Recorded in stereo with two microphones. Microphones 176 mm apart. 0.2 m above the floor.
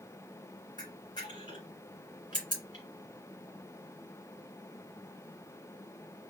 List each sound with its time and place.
0.8 s a camera shutter: 25° left (ahead or behind), 2 m